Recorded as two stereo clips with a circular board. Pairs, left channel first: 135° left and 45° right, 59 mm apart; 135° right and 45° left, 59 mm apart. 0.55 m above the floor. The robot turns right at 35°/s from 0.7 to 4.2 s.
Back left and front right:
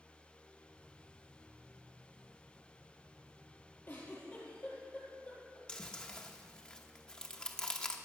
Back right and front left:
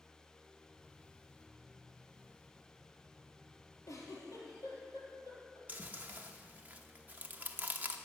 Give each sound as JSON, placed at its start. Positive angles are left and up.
{"t": 3.9, "sound": "a giggle", "azimuth_deg": -170, "distance_m": 3.5}
{"t": 5.7, "sound": "chewing", "azimuth_deg": 75, "distance_m": 0.9}